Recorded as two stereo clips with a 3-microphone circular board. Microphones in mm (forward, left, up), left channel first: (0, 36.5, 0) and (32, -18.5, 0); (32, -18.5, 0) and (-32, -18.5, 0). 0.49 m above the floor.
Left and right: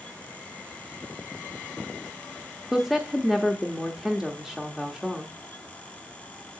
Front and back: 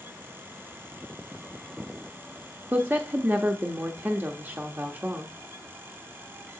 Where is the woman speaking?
140° right, 0.9 m.